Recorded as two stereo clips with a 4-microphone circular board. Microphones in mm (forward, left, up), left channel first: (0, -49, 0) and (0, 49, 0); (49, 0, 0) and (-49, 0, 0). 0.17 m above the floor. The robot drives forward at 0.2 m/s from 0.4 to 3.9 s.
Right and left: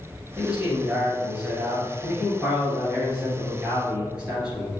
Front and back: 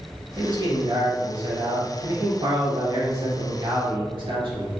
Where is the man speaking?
165° left, 1.9 m; by 4.7 s 170° left, 2.5 m.